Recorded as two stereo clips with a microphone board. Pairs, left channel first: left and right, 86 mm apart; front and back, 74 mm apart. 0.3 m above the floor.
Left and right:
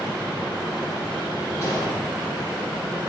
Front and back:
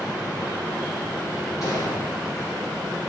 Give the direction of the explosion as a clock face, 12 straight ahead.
11 o'clock.